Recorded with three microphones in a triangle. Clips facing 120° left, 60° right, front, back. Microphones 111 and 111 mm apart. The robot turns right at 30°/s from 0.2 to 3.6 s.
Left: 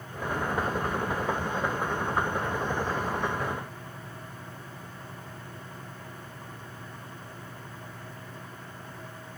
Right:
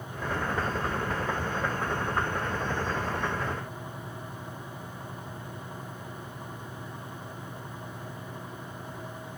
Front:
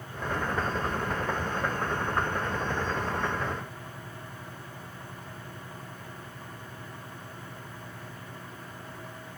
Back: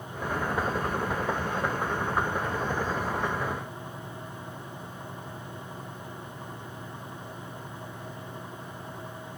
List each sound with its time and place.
Only background noise.